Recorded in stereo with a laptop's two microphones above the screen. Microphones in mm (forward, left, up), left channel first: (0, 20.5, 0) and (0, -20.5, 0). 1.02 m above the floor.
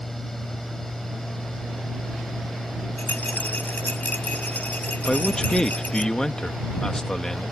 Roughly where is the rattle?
Left.